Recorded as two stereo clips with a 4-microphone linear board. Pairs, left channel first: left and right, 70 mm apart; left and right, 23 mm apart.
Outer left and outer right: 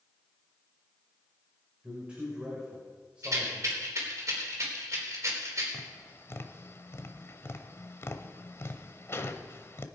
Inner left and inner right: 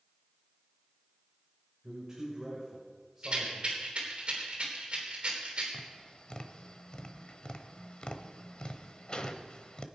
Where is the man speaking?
15° right (ahead or behind), 4 m.